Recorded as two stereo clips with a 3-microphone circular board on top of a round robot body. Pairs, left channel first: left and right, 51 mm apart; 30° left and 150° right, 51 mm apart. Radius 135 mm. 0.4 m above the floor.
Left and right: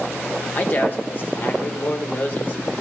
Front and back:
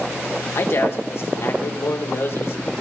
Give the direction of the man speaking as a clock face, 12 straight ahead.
10 o'clock.